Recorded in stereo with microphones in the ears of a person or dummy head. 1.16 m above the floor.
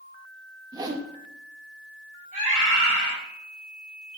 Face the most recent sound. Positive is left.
turn(degrees=-35)  # may be behind; listen again after turning